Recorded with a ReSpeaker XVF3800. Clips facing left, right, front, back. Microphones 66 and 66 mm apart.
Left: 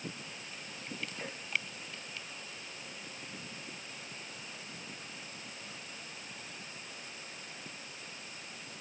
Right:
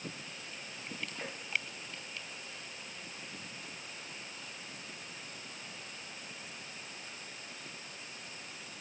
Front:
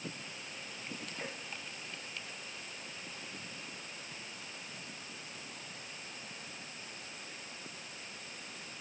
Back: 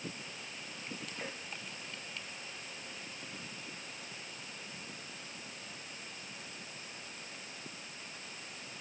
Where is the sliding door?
I don't hear a sliding door.